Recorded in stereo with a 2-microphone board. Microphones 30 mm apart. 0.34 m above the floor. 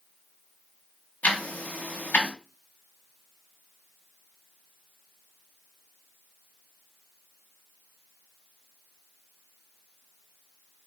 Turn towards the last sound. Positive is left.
turn(degrees=70)  # may be behind; listen again after turning